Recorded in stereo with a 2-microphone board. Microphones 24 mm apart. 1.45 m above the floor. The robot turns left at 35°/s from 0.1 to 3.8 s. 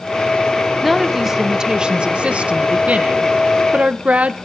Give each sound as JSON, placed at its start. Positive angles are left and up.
{"t": 0.8, "sound": "a woman speaking", "azimuth_deg": 0, "distance_m": 1.3}